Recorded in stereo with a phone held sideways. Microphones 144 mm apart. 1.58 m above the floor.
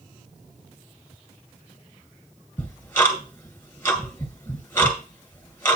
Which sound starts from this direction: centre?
Ticking, at 2.6 s.